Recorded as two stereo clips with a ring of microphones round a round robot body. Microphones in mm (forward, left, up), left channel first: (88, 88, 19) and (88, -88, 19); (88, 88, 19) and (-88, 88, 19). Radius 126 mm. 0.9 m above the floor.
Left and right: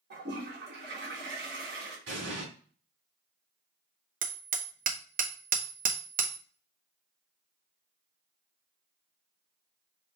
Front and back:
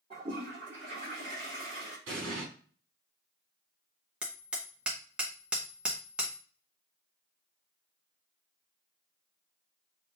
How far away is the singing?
No singing in this recording.